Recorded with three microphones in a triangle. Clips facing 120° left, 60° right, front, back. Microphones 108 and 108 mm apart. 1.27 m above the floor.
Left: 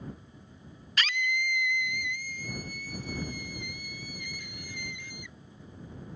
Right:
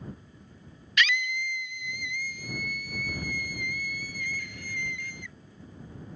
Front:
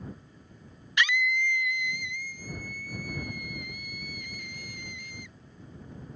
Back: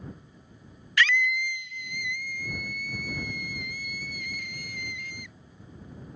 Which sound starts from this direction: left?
A scream, at 1.0 s.